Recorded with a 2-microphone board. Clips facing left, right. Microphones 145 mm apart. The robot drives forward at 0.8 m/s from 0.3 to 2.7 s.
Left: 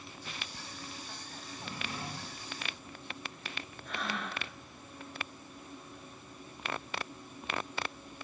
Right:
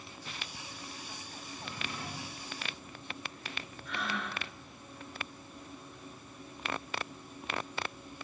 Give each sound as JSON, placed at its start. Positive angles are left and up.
{"t": 1.5, "sound": "a drawer", "side_deg": 40, "distance_m": 1.4}
{"t": 3.9, "sound": "breathing", "side_deg": 45, "distance_m": 1.6}